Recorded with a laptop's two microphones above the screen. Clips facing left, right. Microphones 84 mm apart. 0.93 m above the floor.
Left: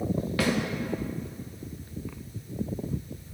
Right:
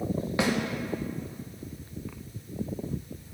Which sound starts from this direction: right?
A snare drum, at 0.4 s.